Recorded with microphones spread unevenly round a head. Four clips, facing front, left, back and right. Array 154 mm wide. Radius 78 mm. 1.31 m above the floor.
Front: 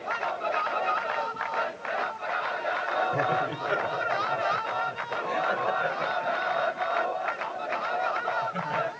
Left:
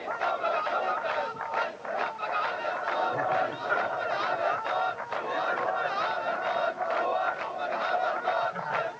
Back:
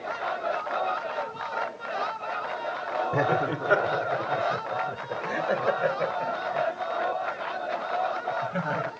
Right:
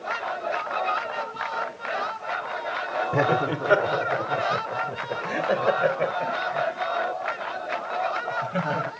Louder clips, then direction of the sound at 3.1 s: Right 5 dB, back 2 dB; 115° right.